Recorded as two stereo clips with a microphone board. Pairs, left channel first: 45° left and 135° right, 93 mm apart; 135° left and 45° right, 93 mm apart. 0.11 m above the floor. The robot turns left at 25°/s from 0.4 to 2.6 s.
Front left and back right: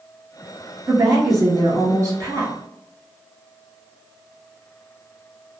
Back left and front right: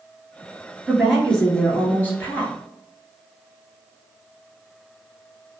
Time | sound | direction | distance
0.9 | a woman speaking | 135° right | 1.5 m